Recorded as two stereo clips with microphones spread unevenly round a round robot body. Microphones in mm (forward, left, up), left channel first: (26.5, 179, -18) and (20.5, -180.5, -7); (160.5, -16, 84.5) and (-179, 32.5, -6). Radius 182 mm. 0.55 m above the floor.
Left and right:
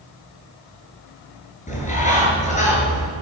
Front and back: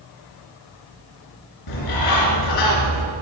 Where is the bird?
20° left, 4 m.